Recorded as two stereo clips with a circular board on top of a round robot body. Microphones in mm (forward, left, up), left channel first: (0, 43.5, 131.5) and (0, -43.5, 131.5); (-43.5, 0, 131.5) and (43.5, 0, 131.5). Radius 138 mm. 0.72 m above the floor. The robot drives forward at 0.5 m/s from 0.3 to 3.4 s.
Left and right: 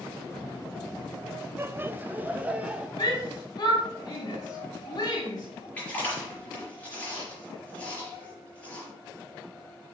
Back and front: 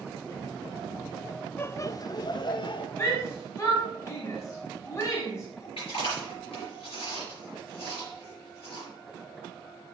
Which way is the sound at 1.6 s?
130° right.